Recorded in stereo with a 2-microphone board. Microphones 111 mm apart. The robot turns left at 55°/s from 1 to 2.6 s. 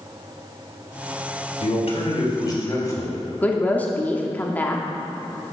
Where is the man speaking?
85° left, 3 m; by 3.2 s 30° left, 3 m.